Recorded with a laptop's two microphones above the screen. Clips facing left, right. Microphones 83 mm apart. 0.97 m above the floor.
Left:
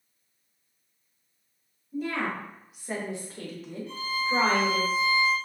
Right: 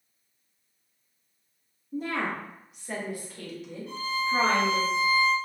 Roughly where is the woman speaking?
Right.